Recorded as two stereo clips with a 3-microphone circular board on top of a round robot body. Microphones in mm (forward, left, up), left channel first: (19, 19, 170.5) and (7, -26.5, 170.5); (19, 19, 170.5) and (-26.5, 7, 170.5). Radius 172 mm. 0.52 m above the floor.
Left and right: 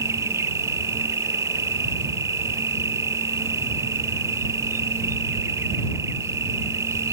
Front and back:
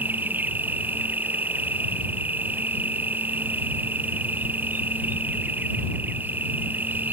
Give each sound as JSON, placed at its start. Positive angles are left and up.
{"t": 0.0, "sound": "an insect", "azimuth_deg": -115}